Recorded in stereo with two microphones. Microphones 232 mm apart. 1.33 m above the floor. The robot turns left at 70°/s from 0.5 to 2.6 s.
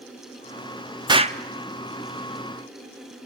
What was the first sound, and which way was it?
An explosion, 15° right (ahead or behind).